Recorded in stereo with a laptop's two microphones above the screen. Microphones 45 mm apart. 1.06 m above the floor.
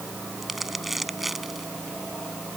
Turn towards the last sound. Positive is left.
turn(degrees=0)  # may be behind; listen again after turning